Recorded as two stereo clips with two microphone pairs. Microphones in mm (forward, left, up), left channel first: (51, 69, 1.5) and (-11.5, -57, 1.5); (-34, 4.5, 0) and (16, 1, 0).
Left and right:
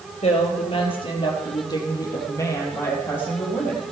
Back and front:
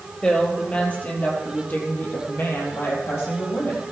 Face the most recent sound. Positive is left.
turn(degrees=145)